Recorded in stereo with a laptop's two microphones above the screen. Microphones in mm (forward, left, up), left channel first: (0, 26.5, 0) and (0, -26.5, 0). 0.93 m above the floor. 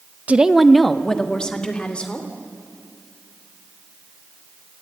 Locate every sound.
0.3 s a woman speaking: 25° right (ahead or behind), 0.7 m; by 2.3 s 20° left (ahead or behind), 3 m